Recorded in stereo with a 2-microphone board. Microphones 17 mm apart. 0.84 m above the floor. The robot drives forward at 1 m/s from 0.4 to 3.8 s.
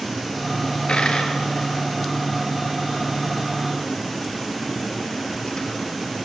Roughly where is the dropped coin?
Left.